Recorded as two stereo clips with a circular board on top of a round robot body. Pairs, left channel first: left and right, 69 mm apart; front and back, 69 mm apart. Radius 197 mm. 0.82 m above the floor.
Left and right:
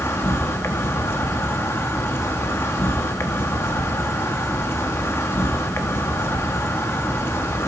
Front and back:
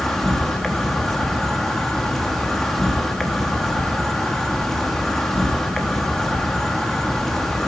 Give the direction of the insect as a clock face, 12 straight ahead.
9 o'clock.